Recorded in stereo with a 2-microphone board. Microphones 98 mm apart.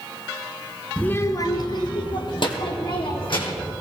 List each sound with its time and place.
1.0 s a child speaking: 10° left (ahead or behind), 0.6 m; by 3.7 s 65° left (ahead or behind), 3.5 m